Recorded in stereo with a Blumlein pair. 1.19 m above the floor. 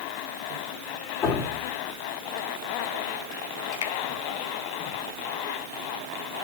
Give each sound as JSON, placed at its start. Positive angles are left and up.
{"t": 1.2, "sound": "dripping", "azimuth_deg": 35, "distance_m": 2.5}
{"t": 3.8, "sound": "a finger snap", "azimuth_deg": 60, "distance_m": 1.0}